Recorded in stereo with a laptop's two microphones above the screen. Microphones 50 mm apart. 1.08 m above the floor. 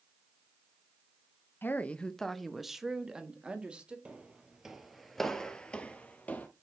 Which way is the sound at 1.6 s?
40° left (ahead or behind).